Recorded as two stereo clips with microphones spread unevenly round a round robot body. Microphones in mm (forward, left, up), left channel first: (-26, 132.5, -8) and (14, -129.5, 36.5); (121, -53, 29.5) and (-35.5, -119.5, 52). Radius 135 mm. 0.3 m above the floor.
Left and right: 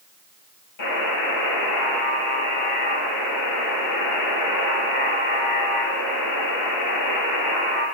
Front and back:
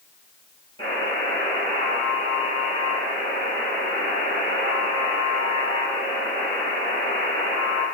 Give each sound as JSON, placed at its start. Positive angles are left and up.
{"t": 0.8, "sound": "a buzzer", "azimuth_deg": 95, "distance_m": 9.5}